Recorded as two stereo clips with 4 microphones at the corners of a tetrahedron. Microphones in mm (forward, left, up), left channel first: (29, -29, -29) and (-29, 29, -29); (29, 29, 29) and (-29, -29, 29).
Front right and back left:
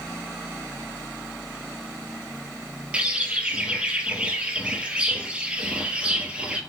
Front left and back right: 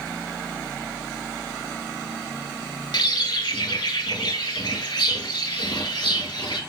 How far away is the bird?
About 0.7 m.